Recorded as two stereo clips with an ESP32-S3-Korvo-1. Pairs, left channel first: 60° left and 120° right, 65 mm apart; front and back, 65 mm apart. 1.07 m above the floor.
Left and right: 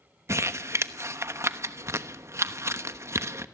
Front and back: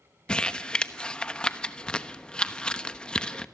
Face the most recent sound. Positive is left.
turn(degrees=-75)